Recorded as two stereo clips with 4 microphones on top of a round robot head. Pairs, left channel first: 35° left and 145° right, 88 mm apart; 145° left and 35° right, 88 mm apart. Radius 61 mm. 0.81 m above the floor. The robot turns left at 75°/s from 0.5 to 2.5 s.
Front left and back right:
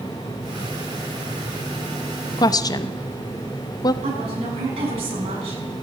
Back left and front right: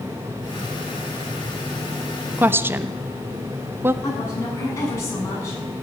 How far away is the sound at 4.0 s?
About 7.5 m.